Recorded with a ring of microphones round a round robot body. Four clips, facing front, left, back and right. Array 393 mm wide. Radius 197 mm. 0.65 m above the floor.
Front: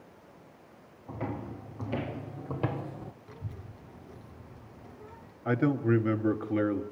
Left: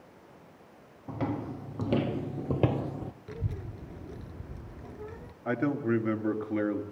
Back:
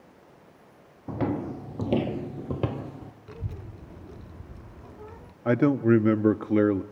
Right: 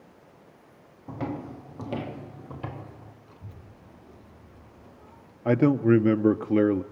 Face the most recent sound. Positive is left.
turn(degrees=-130)